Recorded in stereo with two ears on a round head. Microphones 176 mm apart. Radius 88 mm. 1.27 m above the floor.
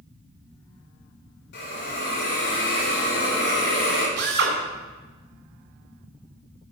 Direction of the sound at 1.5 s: 60° left (ahead or behind).